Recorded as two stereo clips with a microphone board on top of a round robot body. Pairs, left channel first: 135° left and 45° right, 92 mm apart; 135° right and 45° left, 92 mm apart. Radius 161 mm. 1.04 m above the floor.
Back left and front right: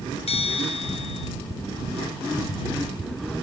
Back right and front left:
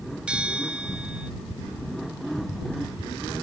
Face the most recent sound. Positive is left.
turn(degrees=125)